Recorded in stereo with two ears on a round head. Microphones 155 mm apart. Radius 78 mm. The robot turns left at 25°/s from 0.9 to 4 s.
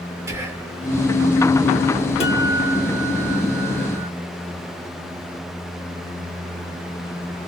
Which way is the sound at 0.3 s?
15° right (ahead or behind).